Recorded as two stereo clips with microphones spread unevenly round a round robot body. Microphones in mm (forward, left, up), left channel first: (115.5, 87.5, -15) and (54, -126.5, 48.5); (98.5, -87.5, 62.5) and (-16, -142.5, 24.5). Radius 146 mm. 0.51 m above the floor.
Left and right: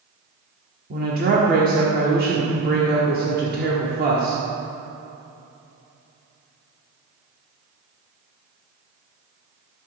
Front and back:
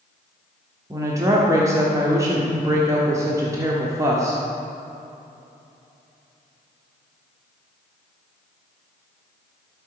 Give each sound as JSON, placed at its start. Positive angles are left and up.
{"t": 0.9, "sound": "a woman speaking", "azimuth_deg": -165, "distance_m": 1.4}